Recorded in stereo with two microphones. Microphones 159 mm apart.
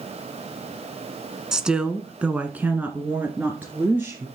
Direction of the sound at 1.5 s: 5° right (ahead or behind).